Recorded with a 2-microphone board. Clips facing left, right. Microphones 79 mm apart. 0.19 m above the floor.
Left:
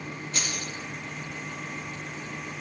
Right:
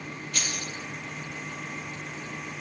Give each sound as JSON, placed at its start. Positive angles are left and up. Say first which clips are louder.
{"t": 0.3, "sound": "keys jangling", "louder": "even", "side_deg": 25, "distance_m": 4.0}